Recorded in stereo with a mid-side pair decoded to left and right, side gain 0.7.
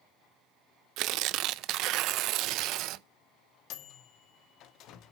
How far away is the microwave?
About 1.8 m.